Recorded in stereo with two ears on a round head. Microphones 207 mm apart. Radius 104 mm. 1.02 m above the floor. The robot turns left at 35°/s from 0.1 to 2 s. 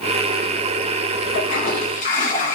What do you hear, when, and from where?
1.3 s a toilet flushing: 45° left (ahead or behind), 1.3 m; by 2.6 s 35° left (ahead or behind), 1.3 m